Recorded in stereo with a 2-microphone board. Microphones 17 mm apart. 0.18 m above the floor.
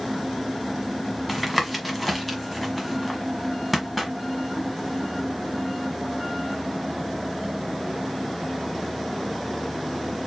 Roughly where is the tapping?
Centre.